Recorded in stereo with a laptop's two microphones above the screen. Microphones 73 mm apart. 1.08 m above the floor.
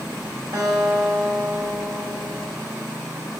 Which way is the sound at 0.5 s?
80° right.